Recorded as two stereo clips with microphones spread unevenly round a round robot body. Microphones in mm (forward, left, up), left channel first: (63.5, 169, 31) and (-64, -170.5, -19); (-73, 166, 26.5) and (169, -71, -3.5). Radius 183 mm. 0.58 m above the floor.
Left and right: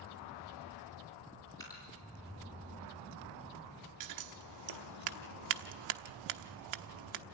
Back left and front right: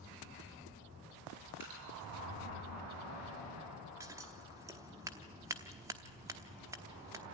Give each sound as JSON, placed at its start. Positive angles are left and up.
{"t": 1.6, "sound": "dripping", "azimuth_deg": -10, "distance_m": 6.0}
{"t": 4.0, "sound": "scissors", "azimuth_deg": -120, "distance_m": 0.9}